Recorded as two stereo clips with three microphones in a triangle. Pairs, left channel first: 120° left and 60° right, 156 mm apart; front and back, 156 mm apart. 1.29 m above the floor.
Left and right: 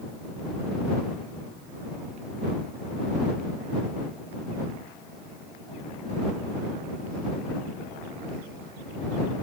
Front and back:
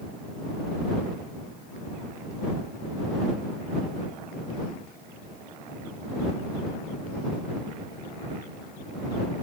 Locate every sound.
Only background noise.